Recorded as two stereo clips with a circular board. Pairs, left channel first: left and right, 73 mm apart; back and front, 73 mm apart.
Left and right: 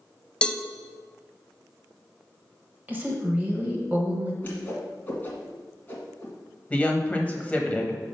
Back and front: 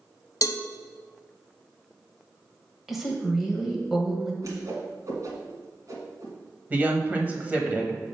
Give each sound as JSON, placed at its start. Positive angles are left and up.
{"t": 0.4, "sound": "a cowbell", "azimuth_deg": 165, "distance_m": 0.5}
{"t": 2.9, "sound": "a woman speaking", "azimuth_deg": -85, "distance_m": 1.2}
{"t": 4.4, "sound": "a whoosh", "azimuth_deg": 30, "distance_m": 1.7}
{"t": 6.7, "sound": "a woman speaking", "azimuth_deg": 40, "distance_m": 1.1}